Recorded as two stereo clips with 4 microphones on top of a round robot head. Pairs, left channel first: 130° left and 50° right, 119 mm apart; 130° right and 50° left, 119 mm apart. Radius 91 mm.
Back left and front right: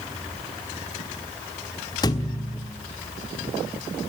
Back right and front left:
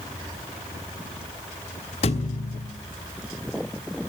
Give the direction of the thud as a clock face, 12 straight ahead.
6 o'clock.